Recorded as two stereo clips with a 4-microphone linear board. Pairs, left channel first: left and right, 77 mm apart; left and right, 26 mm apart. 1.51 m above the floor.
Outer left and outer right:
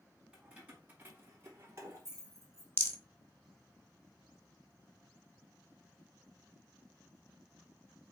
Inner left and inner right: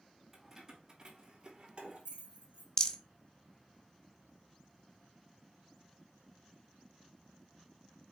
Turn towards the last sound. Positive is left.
turn(degrees=30)  # may be behind; listen again after turning